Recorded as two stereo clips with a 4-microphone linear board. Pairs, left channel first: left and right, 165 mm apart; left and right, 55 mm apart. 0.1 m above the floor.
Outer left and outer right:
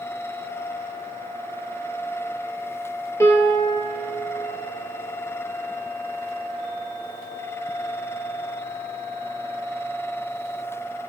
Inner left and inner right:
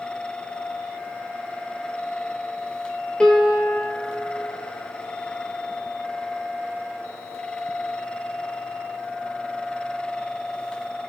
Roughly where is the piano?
Centre.